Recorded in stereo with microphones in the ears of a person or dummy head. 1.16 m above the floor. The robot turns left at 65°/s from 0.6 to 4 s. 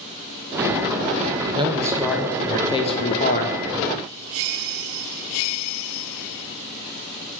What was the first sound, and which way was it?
A man speaking, 145° right.